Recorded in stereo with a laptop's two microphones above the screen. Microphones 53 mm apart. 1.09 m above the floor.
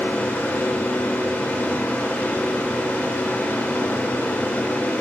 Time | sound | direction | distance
0.0 | a fan | 30° left (ahead or behind) | 1.6 m